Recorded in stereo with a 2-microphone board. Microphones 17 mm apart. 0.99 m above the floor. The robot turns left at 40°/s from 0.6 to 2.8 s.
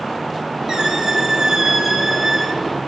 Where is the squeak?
115° right, 1.9 m; by 2.6 s 170° left, 1.9 m.